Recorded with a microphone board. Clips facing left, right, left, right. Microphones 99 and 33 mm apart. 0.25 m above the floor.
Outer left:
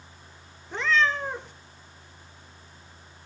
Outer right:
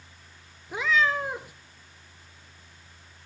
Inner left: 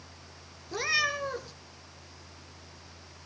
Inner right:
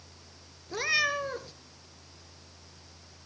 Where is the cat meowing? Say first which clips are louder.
Even, inner right 1 dB; 10° right (ahead or behind), 1.1 m.